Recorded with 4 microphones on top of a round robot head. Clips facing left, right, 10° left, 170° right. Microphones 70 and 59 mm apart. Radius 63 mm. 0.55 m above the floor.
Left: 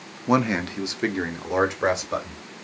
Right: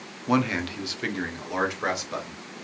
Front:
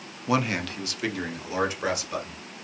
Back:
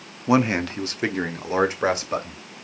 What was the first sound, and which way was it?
A man speaking, 140° left.